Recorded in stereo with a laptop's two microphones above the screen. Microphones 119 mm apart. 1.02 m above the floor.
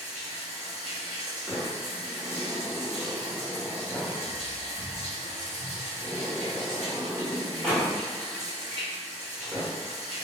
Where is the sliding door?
5° left (ahead or behind), 1.2 m.